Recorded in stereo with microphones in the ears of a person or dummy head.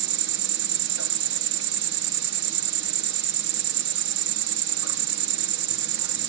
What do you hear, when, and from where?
0.0 s an insect: 65° right (ahead or behind), 1.6 m